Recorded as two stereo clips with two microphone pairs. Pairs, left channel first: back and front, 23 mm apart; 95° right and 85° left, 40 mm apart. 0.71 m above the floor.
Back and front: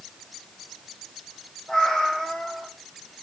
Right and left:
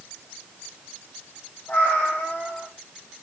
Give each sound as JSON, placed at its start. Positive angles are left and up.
{"t": 1.7, "sound": "a cat meowing", "azimuth_deg": -125, "distance_m": 6.0}